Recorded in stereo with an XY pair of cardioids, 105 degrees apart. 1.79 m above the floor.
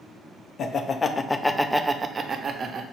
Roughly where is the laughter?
Ahead left.